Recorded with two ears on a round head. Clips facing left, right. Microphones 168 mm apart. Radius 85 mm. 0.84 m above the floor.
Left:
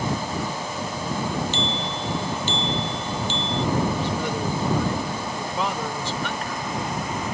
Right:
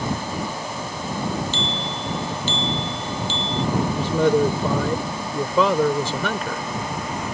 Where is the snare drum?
I don't hear a snare drum.